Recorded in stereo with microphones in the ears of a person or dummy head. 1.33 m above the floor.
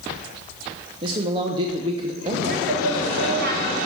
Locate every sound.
1.0 s a man speaking: 35° right (ahead or behind), 1.0 m
2.4 s a woman speaking: 65° right (ahead or behind), 3.5 m